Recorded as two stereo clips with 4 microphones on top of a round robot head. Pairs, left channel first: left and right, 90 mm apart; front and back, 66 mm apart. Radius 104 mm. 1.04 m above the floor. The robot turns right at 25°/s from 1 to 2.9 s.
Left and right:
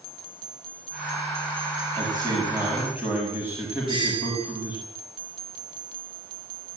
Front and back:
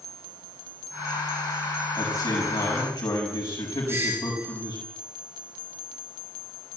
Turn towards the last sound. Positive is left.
turn(degrees=-120)